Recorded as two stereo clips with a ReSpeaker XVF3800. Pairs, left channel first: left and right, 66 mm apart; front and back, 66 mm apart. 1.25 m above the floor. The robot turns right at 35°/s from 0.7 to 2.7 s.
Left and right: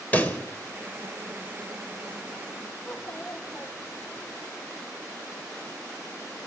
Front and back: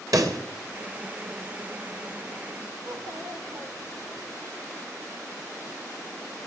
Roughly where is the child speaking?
Behind left.